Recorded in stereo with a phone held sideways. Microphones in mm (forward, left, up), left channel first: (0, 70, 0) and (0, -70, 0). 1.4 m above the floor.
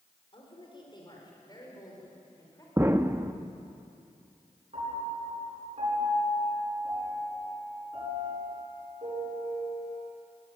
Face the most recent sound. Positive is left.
turn(degrees=-50)  # may be behind; listen again after turning